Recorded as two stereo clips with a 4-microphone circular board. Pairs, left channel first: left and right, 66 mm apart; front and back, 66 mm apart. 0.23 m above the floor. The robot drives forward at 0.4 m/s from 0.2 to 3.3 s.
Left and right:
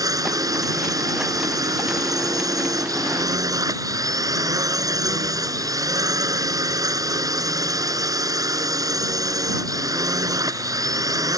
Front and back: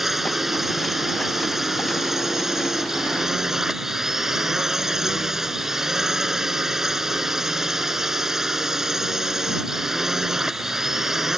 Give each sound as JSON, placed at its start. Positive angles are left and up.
{"t": 0.0, "sound": "a drone", "azimuth_deg": -95}